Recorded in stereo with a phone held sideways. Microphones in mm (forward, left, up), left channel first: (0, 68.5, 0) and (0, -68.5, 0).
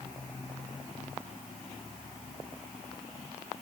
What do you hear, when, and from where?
Only background noise.